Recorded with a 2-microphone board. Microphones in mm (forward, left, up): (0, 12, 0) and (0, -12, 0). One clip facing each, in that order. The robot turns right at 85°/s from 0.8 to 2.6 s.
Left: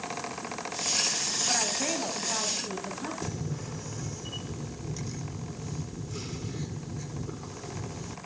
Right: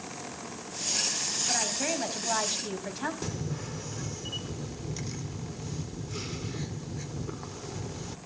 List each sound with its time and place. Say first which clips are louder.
1.5 s a woman speaking: left 1 dB; 170° left, 4 m; by 3.1 s 95° right, 4 m
3.2 s a camera shutter: even; 15° right (ahead or behind), 1.3 m